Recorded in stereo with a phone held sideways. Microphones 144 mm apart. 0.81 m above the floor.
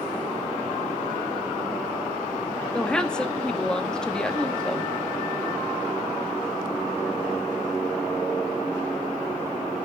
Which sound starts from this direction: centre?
A woman speaking, at 2.7 s.